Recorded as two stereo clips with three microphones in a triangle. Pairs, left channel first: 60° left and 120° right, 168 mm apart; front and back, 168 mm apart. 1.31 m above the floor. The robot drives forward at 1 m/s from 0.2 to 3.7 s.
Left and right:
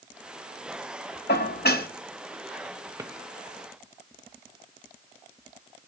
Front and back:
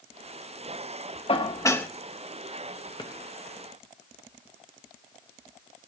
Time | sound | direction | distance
1.3 | dishes clattering | 55° left | 1.3 m
3.0 | a drawer | 50° right | 0.8 m